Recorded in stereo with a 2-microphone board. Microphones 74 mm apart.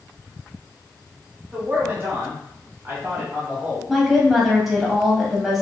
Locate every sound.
1.5 s a man speaking: 30° right (ahead or behind), 1.4 m; by 3.8 s 20° right (ahead or behind), 1.1 m
3.9 s a woman speaking: 5° right (ahead or behind), 1.1 m